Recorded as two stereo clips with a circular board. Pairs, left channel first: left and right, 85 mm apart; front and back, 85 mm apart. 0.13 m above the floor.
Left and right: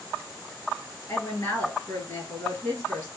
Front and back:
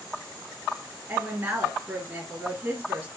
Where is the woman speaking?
120° left, 1.9 m.